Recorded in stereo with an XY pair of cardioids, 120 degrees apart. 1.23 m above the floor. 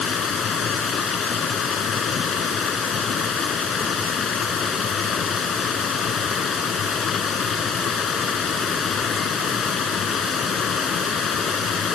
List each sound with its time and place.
0.0 s running water: 45° left